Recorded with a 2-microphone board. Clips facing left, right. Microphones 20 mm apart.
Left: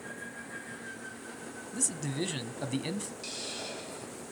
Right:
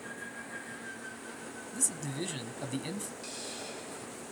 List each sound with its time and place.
1.7 s a man speaking: 15° left (ahead or behind), 1.0 m
3.2 s a hiss: 25° left (ahead or behind), 4 m